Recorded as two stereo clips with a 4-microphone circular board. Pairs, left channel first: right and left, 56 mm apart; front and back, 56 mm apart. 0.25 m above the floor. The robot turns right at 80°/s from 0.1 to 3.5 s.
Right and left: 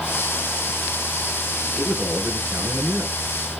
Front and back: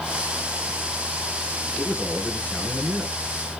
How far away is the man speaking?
About 3.5 m.